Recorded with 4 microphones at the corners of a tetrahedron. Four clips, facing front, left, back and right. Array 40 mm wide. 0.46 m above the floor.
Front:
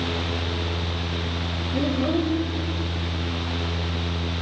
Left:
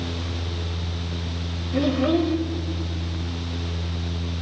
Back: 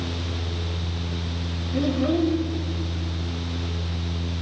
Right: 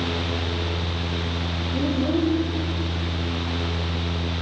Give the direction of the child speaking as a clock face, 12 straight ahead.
9 o'clock.